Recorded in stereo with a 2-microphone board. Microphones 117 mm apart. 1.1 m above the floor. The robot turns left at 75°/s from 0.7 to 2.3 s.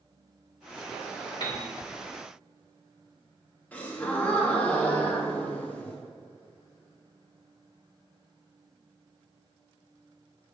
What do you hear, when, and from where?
1.4 s a piano: 40° left (ahead or behind), 1.3 m; by 1.7 s 55° left (ahead or behind), 1.3 m
3.7 s a gasp: 15° left (ahead or behind), 1.0 m